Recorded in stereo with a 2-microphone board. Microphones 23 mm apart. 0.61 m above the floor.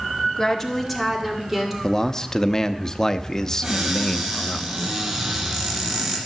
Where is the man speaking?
25° left (ahead or behind), 0.7 m.